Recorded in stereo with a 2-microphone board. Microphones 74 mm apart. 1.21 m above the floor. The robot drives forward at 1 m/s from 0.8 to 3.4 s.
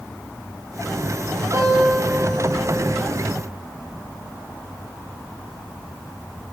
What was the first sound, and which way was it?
A guitar, 45° right (ahead or behind).